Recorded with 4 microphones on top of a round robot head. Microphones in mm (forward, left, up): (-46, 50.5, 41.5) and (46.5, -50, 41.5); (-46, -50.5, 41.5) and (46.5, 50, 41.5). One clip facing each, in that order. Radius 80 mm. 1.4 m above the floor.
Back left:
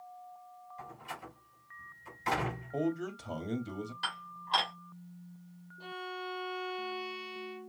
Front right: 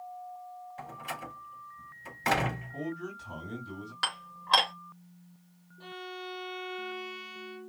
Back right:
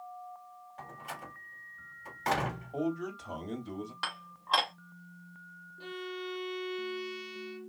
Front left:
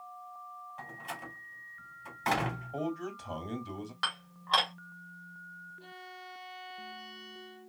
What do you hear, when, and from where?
0.8 s a door slam: 45° right, 3 m
2.7 s a man speaking: 135° left, 2 m
4.0 s dishes clattering: 50° right, 2.5 m
5.8 s a violin: 145° right, 0.9 m